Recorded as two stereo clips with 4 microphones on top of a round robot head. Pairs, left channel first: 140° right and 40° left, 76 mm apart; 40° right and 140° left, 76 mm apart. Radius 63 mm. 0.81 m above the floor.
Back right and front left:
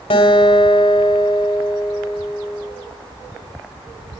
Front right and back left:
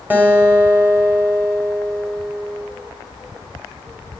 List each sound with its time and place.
0.1 s a guitar: 150° right, 1.7 m